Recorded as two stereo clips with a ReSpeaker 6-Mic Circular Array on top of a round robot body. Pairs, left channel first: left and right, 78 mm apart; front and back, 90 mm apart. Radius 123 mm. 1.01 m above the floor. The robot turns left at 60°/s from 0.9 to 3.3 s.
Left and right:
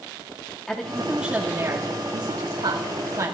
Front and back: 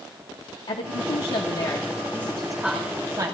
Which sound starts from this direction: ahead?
A woman speaking, at 0.7 s.